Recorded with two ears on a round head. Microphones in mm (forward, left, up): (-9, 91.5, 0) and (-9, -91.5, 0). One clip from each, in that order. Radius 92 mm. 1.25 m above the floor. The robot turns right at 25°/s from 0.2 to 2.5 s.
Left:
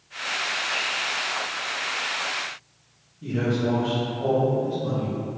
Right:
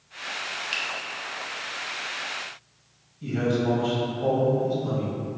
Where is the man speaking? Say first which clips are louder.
Even; 35° right (ahead or behind), 1.8 m.